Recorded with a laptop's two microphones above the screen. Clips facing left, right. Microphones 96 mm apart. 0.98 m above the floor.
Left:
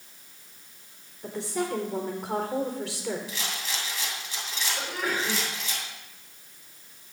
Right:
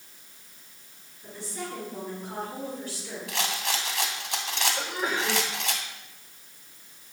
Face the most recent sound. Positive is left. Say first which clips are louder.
# left 3 dB
turn(degrees=-20)  # may be behind; listen again after turning